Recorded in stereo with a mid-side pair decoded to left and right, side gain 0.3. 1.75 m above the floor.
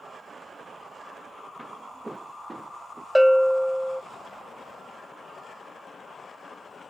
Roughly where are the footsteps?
Ahead.